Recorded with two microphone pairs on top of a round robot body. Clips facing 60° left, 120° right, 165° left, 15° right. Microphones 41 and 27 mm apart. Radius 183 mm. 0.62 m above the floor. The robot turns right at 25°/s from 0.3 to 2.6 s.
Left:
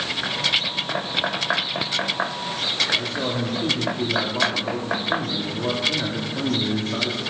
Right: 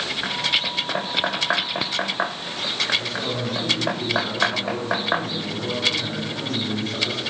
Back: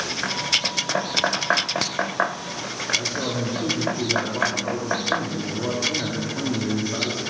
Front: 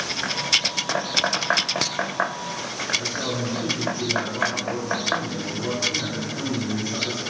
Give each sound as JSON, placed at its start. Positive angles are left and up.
{"t": 2.9, "sound": "a man speaking", "azimuth_deg": 95, "distance_m": 1.9}